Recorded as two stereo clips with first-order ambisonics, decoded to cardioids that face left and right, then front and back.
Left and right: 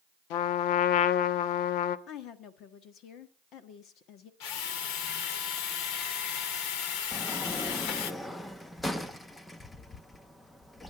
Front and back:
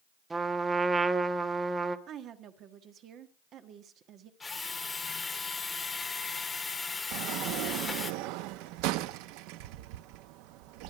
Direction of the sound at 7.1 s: 170° left.